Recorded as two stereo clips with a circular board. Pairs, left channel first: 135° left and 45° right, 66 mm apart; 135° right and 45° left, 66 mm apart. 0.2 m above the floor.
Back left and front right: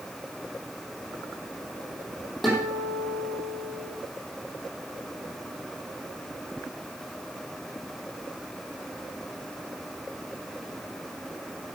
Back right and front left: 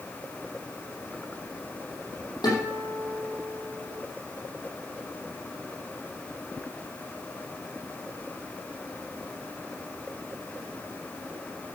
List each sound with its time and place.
2.4 s a guitar: 135° right, 6 m